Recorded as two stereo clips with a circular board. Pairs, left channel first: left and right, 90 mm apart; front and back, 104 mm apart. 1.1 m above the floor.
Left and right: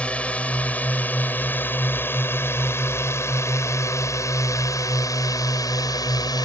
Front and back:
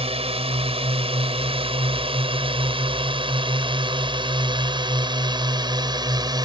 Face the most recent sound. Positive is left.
turn(degrees=135)